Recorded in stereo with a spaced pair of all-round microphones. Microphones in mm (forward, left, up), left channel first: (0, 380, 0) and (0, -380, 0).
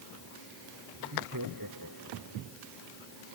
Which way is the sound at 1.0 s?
25° right (ahead or behind).